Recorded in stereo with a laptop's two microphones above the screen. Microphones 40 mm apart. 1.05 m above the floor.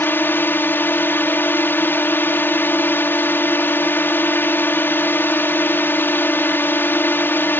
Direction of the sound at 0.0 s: 60° left (ahead or behind).